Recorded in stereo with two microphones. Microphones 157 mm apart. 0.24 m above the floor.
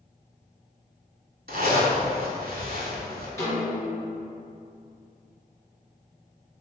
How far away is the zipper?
About 0.8 m.